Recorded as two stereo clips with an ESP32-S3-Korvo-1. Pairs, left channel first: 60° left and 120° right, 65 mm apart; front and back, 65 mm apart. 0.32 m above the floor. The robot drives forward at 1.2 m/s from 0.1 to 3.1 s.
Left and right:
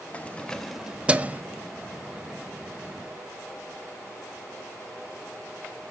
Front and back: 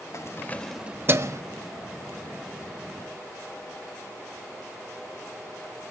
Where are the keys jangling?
Straight ahead, 0.9 m; by 1.4 s straight behind, 1.0 m.